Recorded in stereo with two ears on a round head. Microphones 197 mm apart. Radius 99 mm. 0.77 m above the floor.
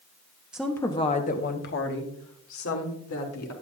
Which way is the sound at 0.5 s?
5° right (ahead or behind).